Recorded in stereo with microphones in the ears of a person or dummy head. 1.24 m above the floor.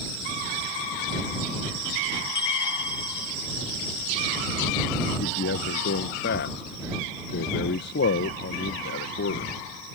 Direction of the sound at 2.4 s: 20° left (ahead or behind).